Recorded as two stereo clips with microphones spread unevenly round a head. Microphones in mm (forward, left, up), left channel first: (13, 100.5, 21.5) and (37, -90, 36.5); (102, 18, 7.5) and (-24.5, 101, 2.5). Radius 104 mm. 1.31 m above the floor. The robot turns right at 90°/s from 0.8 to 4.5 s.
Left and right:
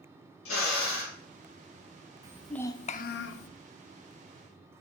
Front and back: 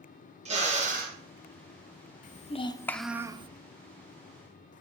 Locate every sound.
0.5 s a drill: 105° left, 1.5 m; by 1.2 s 135° left, 1.5 m
2.2 s a child speaking: 15° right, 0.6 m; by 3.5 s 95° left, 0.6 m